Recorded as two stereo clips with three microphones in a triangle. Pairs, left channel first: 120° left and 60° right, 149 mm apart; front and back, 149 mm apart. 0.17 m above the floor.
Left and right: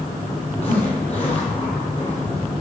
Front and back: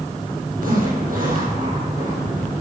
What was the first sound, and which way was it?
A zipper, 165° left.